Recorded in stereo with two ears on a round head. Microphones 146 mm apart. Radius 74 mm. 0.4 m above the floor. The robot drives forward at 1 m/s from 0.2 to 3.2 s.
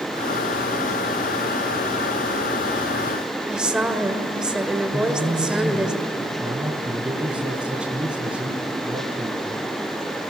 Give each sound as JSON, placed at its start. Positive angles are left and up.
{"t": 3.5, "sound": "a woman speaking", "side_deg": -5, "distance_m": 1.8}
{"t": 4.9, "sound": "a man speaking", "side_deg": -5, "distance_m": 3.0}